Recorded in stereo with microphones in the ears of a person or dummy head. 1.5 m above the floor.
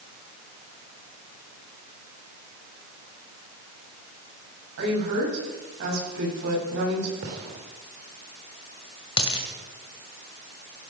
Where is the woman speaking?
65° right (ahead or behind), 10 m.